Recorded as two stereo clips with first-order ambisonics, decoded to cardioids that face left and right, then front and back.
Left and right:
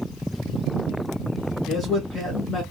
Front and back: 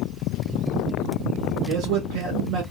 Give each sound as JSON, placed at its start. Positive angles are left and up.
{"t": 1.7, "sound": "a man speaking", "azimuth_deg": 165, "distance_m": 1.5}